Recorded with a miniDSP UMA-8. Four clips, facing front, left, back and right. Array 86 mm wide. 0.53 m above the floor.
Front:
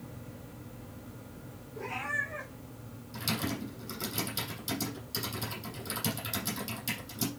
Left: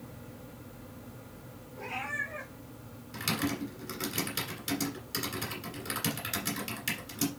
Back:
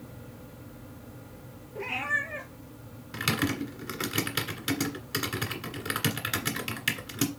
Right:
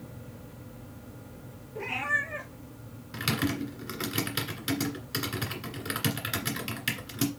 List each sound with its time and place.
1.8 s a cat meowing: 135° right, 2.5 m
3.1 s typing on a keyboard: 160° right, 1.9 m